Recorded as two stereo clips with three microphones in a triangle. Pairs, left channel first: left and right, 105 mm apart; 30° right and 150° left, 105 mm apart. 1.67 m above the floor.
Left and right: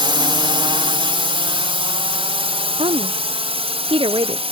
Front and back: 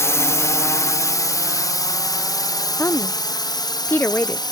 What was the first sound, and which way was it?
A drone, 85° right.